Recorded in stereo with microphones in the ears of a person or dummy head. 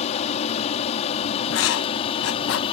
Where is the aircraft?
35° left (ahead or behind).